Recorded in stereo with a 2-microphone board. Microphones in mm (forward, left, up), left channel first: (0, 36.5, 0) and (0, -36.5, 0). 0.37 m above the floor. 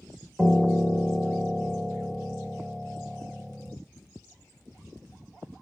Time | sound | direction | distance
0.4 | a piano | 5° left (ahead or behind) | 0.9 m